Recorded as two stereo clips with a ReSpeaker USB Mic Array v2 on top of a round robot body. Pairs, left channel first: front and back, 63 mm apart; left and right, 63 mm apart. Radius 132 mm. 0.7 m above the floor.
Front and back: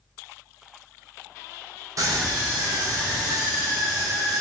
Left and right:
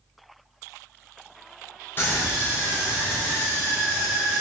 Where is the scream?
145° left, 3.5 m; by 4.4 s 175° left, 3 m.